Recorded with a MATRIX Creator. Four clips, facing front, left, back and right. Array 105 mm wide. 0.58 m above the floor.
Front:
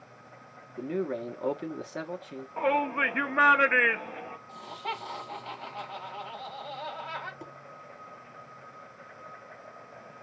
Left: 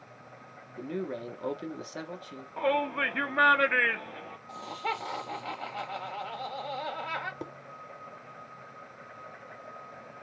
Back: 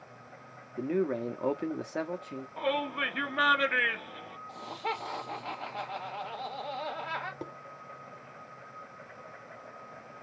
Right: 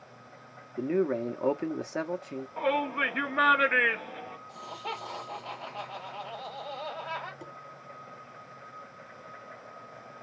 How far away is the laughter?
About 2 m.